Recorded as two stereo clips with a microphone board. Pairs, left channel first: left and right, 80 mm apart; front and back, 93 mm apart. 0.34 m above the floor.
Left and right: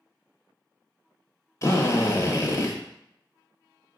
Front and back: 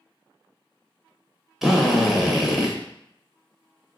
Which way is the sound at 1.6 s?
95° left.